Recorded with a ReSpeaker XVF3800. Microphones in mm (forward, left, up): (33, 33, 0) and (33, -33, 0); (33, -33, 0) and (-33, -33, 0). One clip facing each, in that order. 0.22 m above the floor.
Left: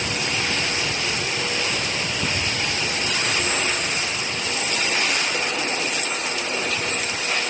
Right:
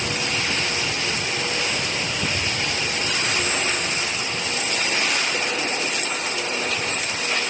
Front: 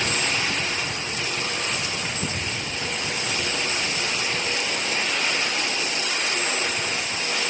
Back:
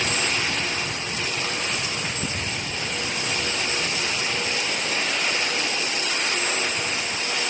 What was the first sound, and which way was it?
Only background noise.